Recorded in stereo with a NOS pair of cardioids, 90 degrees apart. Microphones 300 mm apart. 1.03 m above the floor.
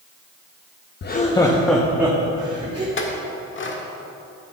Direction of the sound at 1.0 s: 40° left.